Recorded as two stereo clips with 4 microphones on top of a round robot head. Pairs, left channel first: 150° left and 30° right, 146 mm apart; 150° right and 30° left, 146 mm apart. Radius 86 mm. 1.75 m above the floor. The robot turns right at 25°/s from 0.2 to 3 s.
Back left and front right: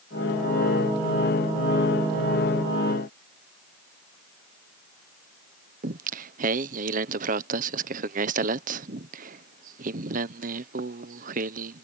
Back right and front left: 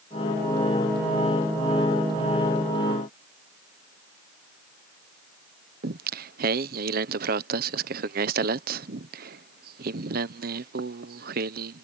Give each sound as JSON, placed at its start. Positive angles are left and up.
{"t": 5.8, "sound": "singing", "azimuth_deg": 5}